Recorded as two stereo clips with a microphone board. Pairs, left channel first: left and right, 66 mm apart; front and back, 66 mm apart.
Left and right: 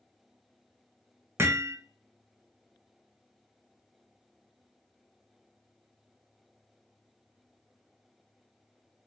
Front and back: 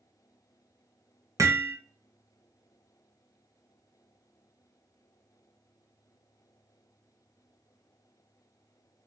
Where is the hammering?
140° right, 0.6 m.